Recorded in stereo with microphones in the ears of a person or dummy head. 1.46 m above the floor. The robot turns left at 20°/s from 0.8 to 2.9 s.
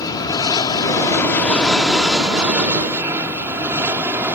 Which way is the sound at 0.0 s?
20° left (ahead or behind).